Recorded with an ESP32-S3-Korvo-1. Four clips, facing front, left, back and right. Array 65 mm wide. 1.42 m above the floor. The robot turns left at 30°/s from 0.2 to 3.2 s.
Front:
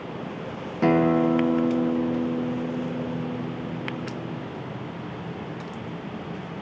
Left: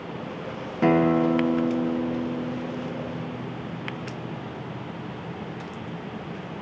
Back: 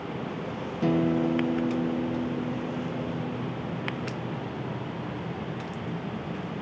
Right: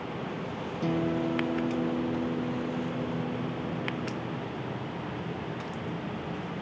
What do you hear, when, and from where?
0.8 s a guitar: 50° left, 0.8 m; by 4.5 s 20° right, 0.8 m